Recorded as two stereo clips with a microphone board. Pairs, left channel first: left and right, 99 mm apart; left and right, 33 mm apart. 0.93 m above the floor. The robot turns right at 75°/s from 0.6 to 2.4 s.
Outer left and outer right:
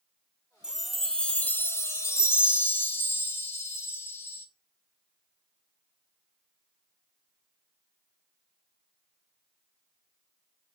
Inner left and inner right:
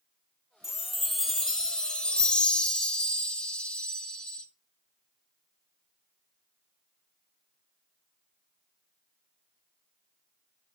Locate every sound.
0.6 s a chime: 10° right (ahead or behind), 0.9 m; by 4.5 s 25° left (ahead or behind), 0.9 m